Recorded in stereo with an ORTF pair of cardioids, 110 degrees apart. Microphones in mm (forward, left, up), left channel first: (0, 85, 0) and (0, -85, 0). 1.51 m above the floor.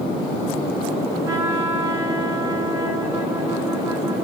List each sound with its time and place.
1.2 s a trumpet: 15° right, 2.5 m